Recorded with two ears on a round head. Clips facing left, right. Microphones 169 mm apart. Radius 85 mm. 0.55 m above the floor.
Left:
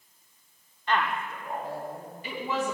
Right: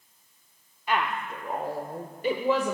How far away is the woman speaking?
About 1.0 m.